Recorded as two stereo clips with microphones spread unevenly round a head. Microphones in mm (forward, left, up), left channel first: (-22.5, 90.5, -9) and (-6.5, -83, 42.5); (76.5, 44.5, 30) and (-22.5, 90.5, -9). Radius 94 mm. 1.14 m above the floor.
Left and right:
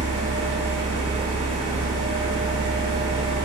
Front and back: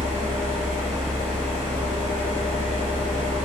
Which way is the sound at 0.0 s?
135° right.